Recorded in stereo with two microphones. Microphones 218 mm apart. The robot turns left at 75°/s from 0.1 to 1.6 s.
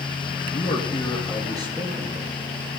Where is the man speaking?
60° left, 2.5 m; by 2.3 s 20° right, 2.5 m.